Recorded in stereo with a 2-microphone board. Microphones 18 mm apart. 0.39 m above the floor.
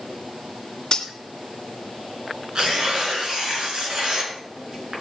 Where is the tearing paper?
55° right (ahead or behind), 4.5 m.